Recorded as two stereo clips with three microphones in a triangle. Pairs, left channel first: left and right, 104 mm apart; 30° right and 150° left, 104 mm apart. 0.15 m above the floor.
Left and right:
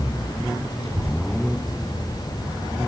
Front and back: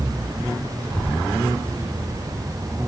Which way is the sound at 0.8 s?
100° right.